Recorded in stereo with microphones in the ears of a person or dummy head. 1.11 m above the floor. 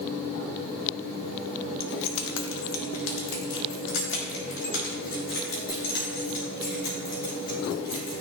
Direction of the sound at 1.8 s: 60° left (ahead or behind).